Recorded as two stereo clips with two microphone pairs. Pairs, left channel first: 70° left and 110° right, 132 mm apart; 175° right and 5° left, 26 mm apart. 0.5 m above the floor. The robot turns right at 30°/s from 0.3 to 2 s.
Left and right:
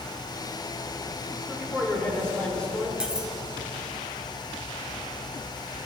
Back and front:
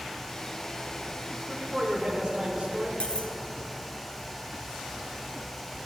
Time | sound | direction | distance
1.5 | a man speaking | 25° right | 1.9 m
3.0 | cutlery clinking | 165° left | 0.7 m